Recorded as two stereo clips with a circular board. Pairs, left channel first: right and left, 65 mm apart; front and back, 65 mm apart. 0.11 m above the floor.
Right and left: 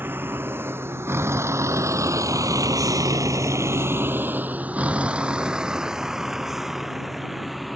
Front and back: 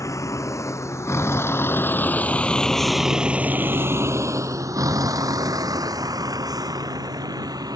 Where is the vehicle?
30° left; by 7.8 s straight behind.